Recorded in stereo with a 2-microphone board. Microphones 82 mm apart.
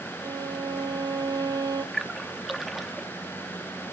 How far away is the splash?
About 0.8 m.